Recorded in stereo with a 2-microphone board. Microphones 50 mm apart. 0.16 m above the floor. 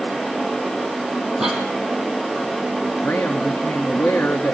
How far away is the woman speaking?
About 1.5 m.